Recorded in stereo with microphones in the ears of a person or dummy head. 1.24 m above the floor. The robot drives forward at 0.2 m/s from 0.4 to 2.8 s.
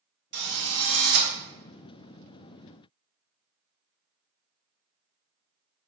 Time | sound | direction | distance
0.3 | a drill | 65° right (ahead or behind) | 1.5 m